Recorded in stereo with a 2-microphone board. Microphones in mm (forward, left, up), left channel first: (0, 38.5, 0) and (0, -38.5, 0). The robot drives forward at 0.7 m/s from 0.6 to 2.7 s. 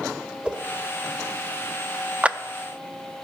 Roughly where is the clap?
Centre.